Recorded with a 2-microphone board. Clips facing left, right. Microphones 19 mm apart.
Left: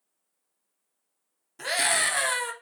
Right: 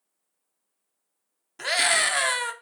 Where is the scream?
25° right (ahead or behind), 0.6 m.